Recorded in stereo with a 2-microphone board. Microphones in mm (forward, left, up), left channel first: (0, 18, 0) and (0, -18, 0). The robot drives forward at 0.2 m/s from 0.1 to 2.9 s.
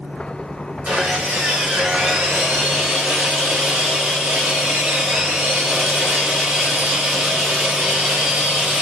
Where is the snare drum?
I don't hear a snare drum.